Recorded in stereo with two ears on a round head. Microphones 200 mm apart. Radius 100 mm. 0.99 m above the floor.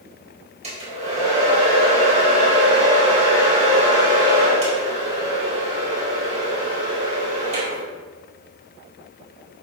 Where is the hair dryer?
35° right (ahead or behind), 4 m.